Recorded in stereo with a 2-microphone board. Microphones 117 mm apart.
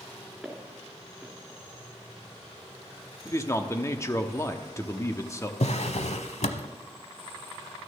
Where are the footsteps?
5° right (ahead or behind), 3.5 m.